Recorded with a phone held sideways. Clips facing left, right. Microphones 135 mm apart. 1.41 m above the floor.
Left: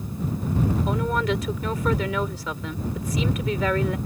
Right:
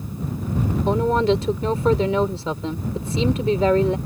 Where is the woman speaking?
30° right (ahead or behind).